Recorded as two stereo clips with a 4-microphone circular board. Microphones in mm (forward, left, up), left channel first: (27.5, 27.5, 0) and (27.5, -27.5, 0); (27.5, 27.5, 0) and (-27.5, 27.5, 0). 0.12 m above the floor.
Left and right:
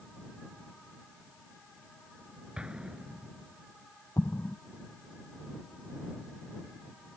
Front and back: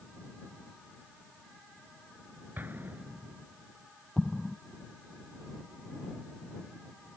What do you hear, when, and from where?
2.6 s an explosion: 155° right
4.2 s an explosion: 80° left